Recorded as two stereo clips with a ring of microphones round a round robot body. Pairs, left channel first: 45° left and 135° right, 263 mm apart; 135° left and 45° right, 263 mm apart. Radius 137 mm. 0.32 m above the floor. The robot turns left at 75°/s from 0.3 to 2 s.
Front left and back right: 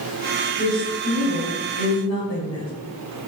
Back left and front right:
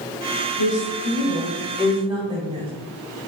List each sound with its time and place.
0.6 s a woman speaking: 135° left, 2 m; by 2.7 s 25° left, 2 m